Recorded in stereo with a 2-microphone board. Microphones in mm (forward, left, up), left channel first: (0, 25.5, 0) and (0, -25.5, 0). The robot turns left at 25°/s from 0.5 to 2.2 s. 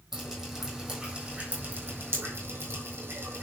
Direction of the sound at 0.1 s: Centre (ahead or behind).